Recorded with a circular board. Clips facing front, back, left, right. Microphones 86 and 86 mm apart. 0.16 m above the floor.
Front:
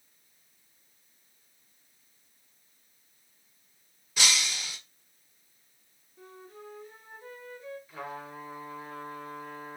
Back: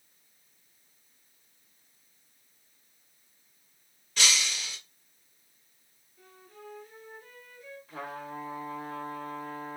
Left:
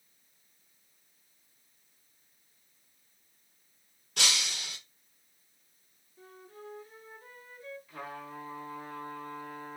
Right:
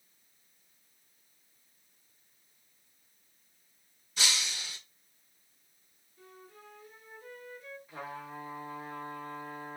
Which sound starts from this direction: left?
Breaking glass, at 4.2 s.